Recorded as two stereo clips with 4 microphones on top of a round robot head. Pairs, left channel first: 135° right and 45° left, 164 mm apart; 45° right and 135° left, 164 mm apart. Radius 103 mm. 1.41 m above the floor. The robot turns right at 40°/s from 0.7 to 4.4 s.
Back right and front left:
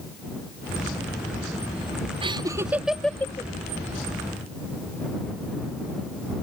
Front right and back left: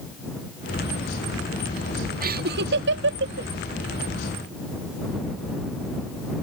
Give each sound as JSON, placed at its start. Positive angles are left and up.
{"t": 2.2, "sound": "laughter", "azimuth_deg": 100}